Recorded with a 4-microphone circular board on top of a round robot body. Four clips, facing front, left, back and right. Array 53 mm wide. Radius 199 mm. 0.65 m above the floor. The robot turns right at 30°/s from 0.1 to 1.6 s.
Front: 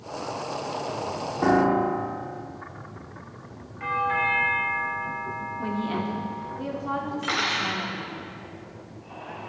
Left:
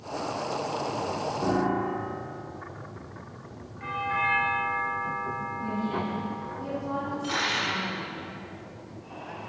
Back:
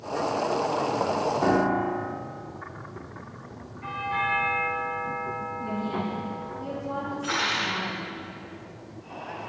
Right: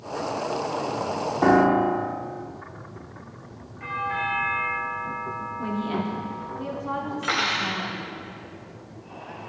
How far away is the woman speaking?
About 2.5 m.